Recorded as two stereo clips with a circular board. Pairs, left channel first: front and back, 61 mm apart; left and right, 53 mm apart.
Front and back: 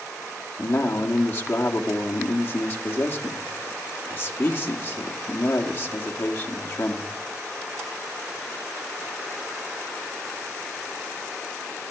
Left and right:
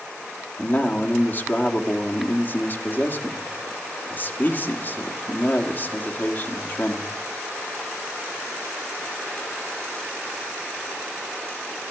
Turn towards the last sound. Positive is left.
turn(degrees=45)